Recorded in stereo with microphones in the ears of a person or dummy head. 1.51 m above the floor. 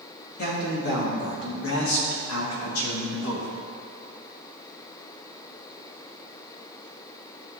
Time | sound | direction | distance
0.4 | a man speaking | 50° left (ahead or behind) | 2.5 m